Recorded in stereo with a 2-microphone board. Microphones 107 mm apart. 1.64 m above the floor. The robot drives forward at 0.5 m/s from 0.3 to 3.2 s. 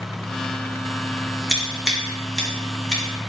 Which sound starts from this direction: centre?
Scissors, at 1.5 s.